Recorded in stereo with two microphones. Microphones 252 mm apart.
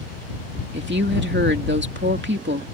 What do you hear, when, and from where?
0.7 s a woman speaking: 45° right (ahead or behind)